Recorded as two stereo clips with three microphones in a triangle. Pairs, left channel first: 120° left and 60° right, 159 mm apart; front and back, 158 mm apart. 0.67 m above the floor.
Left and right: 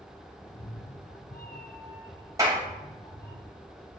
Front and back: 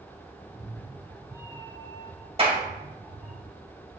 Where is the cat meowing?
80° left, 1.0 m; by 3.4 s 135° left, 2.5 m.